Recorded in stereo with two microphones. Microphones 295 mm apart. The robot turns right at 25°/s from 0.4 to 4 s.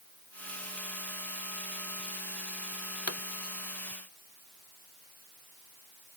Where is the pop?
55° left (ahead or behind); by 3.2 s 60° left (ahead or behind).